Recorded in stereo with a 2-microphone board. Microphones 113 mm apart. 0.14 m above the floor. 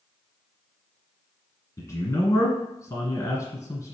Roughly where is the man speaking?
Left.